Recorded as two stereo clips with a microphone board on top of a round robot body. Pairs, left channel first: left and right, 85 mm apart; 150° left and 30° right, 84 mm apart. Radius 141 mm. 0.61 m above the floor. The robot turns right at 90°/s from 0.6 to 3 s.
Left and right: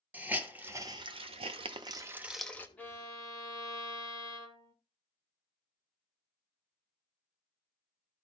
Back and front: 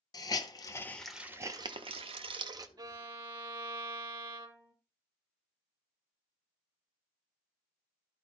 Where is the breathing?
I don't hear breathing.